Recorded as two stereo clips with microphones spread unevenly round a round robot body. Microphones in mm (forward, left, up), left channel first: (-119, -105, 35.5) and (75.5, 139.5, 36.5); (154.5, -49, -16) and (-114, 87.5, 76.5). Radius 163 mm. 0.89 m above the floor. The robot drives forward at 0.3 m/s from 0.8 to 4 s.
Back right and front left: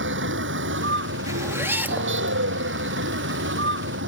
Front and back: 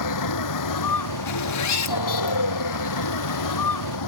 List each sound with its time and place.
0.0 s a vehicle: 5° right
1.3 s a zipper: 30° right; by 2.4 s 35° right